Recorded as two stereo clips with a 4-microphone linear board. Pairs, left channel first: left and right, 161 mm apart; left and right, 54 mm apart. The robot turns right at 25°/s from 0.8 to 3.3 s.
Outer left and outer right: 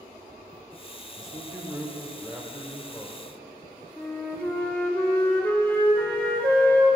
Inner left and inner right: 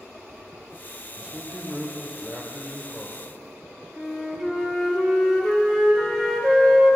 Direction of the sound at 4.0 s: 10° left (ahead or behind).